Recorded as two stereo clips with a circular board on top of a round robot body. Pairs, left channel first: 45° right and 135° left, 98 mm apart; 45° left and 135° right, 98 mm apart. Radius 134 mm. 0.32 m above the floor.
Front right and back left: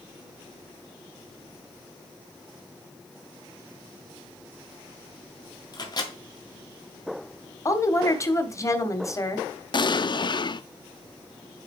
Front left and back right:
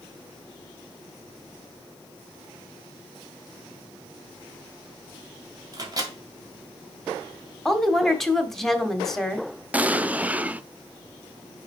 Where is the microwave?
90° right, 2 m.